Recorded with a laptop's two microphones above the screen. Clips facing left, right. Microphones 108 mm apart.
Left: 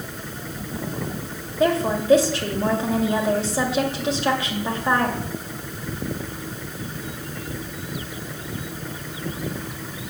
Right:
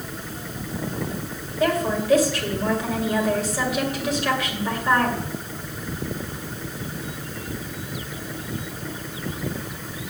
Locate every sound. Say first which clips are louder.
1.6 s a woman speaking: left 2 dB; 25° left (ahead or behind), 2 m